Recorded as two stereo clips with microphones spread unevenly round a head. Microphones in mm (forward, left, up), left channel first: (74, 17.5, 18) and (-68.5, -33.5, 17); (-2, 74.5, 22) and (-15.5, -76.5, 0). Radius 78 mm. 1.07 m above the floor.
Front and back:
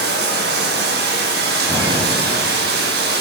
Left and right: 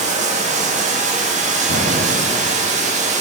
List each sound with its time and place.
0.0 s running water: 140° right, 1.1 m
1.7 s an explosion: 90° right, 1.3 m